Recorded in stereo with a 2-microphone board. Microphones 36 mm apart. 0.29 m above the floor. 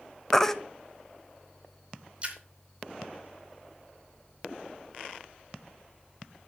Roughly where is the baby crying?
Centre.